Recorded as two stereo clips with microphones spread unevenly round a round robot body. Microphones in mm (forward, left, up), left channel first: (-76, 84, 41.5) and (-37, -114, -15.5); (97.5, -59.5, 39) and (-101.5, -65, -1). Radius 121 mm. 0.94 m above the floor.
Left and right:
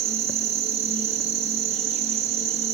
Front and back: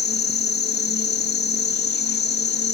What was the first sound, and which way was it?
An insect, 35° right.